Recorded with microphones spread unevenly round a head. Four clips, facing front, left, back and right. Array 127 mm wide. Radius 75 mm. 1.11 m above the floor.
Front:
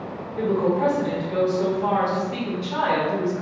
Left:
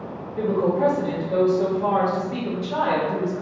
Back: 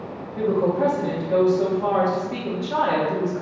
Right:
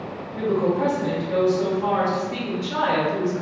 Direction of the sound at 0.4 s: Straight behind.